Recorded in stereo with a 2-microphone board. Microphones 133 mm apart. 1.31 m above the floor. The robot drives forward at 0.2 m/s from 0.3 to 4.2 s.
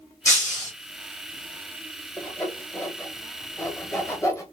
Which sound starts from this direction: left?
Breaking glass, at 0.2 s.